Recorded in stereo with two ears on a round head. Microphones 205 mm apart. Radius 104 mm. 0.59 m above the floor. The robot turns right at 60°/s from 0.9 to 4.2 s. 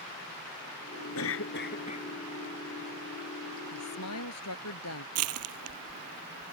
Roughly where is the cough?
Left.